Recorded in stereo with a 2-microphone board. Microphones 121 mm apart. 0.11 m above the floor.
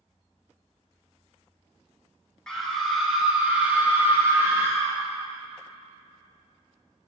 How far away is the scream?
About 1.1 m.